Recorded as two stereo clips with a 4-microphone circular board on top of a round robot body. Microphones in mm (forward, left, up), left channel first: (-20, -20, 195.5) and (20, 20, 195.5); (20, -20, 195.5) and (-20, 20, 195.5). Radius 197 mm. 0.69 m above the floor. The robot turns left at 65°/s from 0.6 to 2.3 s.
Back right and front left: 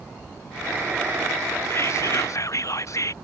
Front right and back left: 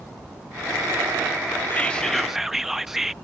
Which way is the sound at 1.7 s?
100° right.